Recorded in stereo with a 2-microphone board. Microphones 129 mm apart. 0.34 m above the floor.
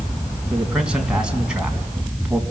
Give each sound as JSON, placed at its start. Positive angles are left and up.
{"t": 0.5, "sound": "a man speaking", "side_deg": -5, "distance_m": 3.5}